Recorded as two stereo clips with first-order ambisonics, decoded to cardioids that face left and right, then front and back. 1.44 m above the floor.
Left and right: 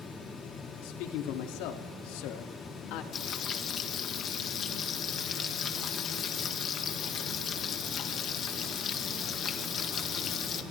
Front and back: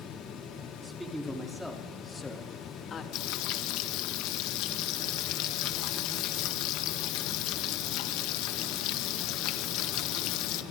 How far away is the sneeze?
I don't hear a sneeze.